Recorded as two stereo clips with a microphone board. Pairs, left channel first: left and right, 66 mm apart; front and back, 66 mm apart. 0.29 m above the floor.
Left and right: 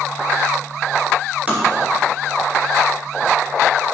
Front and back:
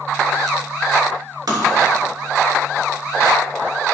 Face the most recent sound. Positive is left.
turn(degrees=-155)